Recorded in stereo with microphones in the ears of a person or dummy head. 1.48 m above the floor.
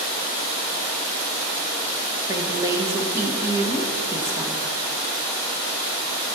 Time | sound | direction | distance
2.3 | a woman speaking | 15° right (ahead or behind) | 1.2 m